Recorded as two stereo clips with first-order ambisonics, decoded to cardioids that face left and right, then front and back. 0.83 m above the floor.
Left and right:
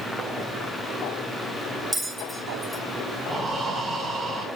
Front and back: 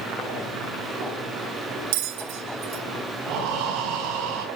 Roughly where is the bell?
Behind.